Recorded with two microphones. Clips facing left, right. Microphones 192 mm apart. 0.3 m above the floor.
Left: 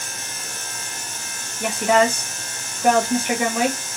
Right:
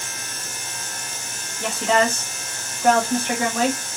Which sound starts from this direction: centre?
A woman speaking, at 1.6 s.